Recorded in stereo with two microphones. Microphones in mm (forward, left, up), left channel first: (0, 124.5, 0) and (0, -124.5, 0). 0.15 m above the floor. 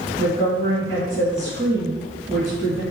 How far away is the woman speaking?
About 1.8 m.